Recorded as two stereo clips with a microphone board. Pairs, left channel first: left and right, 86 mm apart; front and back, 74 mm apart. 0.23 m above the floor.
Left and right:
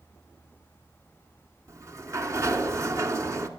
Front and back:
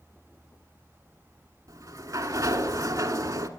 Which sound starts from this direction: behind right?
A sliding door, at 1.7 s.